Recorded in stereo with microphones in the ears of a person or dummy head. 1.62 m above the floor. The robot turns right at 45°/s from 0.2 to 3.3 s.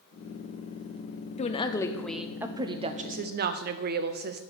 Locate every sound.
1.4 s a woman speaking: 150° left, 0.6 m; by 4.4 s 125° right, 0.6 m